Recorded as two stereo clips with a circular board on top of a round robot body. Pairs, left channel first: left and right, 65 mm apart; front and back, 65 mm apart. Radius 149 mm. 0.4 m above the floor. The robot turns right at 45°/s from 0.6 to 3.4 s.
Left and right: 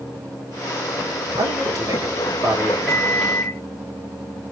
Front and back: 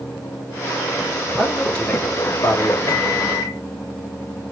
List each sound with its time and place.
1.4 s a man speaking: 95° right, 2.5 m; by 2.8 s 30° right, 2.5 m
2.9 s a microwave: 5° right, 2.5 m; by 3.6 s 20° left, 2.5 m